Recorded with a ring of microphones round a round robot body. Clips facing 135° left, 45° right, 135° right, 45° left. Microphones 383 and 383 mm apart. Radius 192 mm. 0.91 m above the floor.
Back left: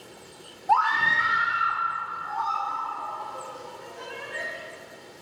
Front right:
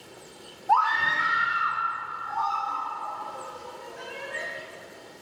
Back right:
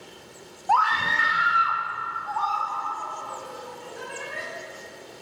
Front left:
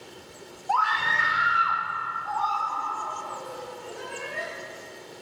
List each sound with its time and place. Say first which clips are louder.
0.7 s a scream: back left 1 dB, back right 4 dB; 170° right, 1.1 m; by 4.4 s 105° right, 6.5 m